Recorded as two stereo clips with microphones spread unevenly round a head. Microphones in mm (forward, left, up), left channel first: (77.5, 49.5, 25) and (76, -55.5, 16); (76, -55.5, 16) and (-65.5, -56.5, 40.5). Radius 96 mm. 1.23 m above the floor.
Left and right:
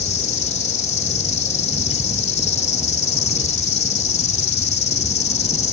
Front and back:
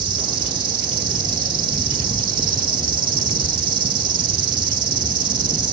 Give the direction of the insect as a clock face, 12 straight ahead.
8 o'clock.